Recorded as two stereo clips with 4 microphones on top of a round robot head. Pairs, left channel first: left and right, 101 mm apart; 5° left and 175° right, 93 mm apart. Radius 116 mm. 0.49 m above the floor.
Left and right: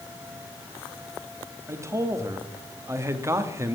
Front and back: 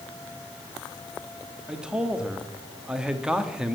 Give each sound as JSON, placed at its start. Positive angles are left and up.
{"t": 1.7, "sound": "a man speaking", "azimuth_deg": -100, "distance_m": 1.4}